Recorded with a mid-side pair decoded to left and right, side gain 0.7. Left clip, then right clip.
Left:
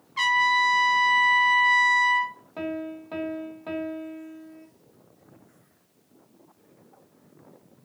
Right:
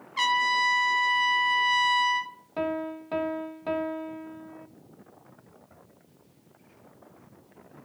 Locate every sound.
0.2 s a trumpet: straight ahead, 1.9 m
2.6 s a piano: 15° right, 1.0 m